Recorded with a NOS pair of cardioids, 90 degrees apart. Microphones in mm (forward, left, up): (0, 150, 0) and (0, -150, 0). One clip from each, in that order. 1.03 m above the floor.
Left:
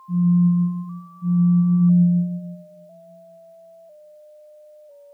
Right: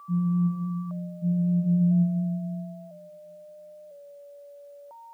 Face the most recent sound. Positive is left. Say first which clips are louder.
# left 8 dB
turn(degrees=-5)